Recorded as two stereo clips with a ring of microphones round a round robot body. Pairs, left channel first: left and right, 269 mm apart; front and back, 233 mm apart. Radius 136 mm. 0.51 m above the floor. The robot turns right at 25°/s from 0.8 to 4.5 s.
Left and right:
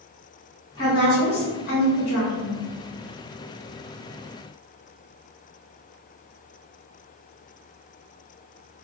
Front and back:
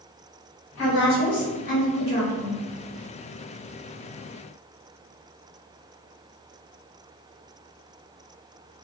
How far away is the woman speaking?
About 1.6 m.